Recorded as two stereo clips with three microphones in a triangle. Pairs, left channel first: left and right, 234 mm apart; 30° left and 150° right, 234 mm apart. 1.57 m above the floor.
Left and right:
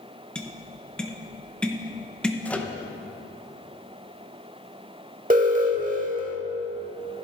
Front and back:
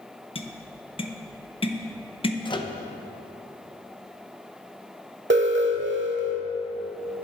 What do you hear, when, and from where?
0.3 s tapping: 10° left, 0.7 m
2.5 s a microwave: 20° left, 0.7 m
5.3 s an alarm: 135° right, 1.1 m